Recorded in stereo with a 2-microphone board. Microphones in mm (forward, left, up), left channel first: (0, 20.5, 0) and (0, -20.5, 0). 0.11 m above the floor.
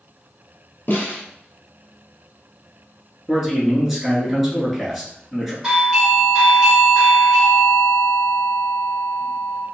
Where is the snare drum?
50° left (ahead or behind), 1.2 m.